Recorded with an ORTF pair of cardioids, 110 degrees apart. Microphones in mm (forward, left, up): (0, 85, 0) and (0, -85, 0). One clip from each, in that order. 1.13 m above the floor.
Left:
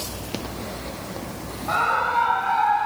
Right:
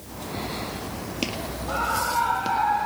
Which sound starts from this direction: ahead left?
A scream, at 1.7 s.